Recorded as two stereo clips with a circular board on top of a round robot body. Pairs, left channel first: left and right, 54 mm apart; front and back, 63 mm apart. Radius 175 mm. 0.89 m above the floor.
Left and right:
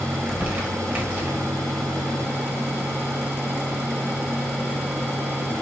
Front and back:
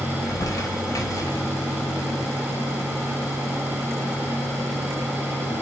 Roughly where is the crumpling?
Ahead right.